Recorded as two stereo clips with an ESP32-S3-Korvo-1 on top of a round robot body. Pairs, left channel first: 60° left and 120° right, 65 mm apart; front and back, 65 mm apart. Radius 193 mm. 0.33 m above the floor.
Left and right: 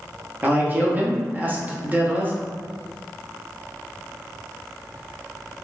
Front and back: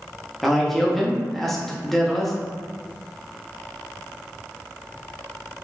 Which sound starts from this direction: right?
A man speaking, at 0.4 s.